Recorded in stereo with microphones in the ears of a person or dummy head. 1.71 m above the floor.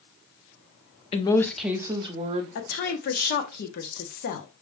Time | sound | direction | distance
1.1 | a woman speaking | 35° left (ahead or behind) | 0.5 m
2.5 | a woman speaking | 55° left (ahead or behind) | 0.8 m